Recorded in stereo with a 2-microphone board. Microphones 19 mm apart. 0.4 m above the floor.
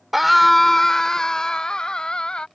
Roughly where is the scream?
Centre.